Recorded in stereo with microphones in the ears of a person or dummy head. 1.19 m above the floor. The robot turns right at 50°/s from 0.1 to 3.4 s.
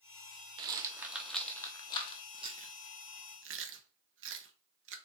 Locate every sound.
0.6 s a rattle: 25° right (ahead or behind), 0.6 m; by 2.2 s 30° left (ahead or behind), 0.6 m
2.3 s chewing: 15° right (ahead or behind), 0.5 m; by 5.0 s 60° right (ahead or behind), 0.5 m